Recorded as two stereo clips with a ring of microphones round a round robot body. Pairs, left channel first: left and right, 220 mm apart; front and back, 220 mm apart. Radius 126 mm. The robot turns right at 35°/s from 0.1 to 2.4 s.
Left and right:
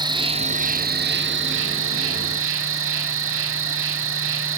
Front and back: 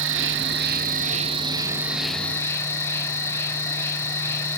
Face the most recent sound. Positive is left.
turn(degrees=-80)